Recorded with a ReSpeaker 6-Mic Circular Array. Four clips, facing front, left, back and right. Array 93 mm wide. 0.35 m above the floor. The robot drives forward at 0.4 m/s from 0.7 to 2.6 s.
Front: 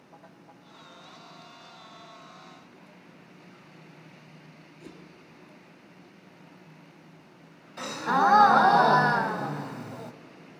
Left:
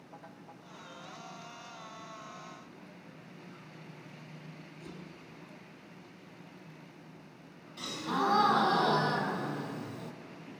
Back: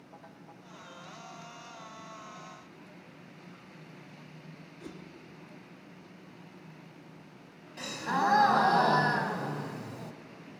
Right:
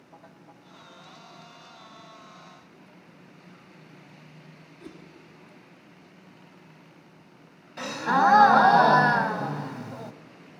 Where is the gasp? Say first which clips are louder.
Right 10 dB, front 6 dB; 75° right, 0.9 m.